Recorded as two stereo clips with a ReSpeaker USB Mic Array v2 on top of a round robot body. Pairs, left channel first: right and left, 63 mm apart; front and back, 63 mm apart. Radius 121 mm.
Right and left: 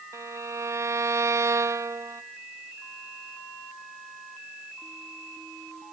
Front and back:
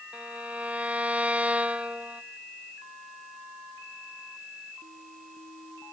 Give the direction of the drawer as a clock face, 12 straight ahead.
I don't hear a drawer.